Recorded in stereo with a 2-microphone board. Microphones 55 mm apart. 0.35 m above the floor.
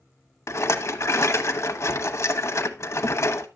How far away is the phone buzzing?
No phone buzzing in this recording.